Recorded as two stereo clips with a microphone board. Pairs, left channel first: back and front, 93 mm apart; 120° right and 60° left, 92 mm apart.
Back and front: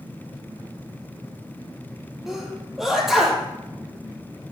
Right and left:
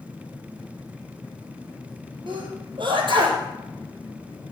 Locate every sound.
2.3 s a sneeze: 85° left, 5 m